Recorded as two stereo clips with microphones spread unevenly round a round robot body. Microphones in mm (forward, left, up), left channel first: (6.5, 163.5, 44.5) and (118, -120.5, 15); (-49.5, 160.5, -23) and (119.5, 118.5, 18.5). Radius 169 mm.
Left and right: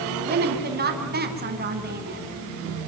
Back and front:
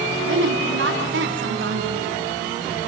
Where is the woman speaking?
10° right, 4.5 m.